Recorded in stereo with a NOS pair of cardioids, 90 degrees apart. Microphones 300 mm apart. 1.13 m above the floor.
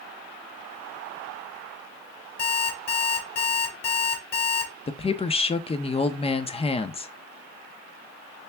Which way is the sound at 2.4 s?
60° left.